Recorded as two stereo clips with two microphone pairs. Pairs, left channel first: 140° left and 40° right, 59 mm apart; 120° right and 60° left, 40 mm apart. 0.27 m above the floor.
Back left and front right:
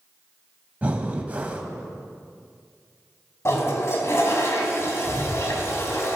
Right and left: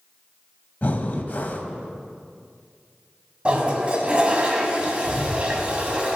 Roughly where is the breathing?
Right.